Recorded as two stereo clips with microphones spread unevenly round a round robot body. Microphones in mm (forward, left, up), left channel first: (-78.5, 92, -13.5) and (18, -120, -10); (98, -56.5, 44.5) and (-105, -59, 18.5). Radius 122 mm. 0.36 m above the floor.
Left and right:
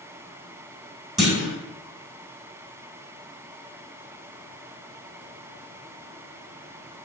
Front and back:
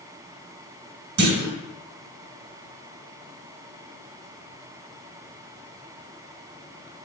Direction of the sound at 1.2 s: 155° right.